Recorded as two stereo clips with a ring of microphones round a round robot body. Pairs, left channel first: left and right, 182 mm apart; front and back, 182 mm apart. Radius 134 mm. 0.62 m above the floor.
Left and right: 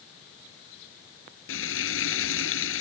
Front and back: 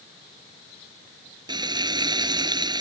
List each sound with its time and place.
1.5 s frying: 115° left